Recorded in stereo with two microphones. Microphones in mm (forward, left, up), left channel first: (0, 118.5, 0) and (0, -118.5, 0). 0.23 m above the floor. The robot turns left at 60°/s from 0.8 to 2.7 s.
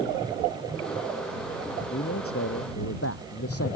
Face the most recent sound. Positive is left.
turn(degrees=85)